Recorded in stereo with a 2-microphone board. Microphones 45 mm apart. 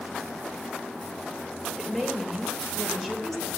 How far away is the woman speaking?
About 3.5 m.